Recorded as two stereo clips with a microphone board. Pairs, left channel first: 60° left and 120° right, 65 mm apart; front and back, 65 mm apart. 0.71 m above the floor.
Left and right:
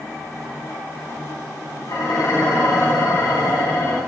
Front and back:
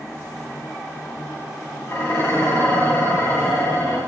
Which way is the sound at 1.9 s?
45° left.